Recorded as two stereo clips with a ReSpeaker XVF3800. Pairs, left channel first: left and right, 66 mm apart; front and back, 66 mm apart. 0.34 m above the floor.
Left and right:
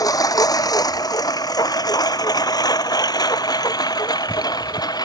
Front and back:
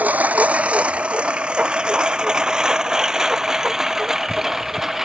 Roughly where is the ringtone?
No ringtone in this recording.